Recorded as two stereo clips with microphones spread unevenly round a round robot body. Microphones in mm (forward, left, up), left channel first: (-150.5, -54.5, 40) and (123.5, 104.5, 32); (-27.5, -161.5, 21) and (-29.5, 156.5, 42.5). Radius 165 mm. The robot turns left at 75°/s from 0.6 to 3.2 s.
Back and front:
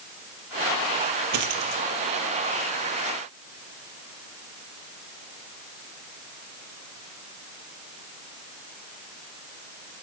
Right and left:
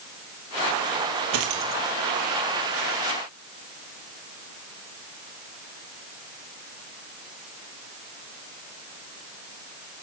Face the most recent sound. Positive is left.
turn(degrees=-70)